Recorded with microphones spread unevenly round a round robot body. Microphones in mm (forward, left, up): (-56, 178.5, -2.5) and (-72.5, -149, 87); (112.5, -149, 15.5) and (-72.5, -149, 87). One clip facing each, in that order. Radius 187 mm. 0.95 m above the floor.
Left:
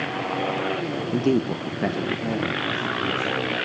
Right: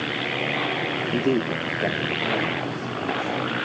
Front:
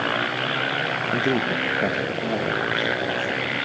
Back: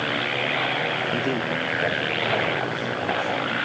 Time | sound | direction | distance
1.1 | a man speaking | 40° left | 0.6 m